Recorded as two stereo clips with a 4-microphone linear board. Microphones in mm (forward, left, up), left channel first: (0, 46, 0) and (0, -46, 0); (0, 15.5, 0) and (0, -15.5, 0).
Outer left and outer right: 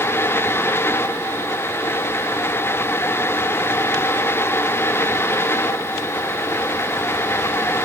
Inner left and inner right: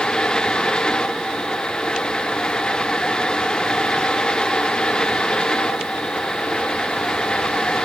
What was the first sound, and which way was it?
Only background noise.